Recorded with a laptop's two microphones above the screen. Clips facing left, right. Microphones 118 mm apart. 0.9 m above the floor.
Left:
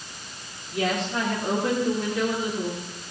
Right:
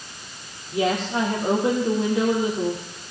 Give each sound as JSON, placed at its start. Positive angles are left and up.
{"t": 0.7, "sound": "a woman speaking", "side_deg": -20, "distance_m": 2.0}